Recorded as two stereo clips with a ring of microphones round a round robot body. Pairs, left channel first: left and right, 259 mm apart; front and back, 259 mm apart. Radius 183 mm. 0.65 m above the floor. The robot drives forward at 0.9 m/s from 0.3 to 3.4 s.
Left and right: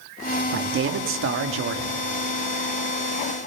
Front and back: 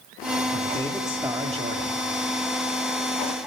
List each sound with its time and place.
0.5 s a man speaking: 65° right, 1.4 m; by 2.0 s 130° right, 1.6 m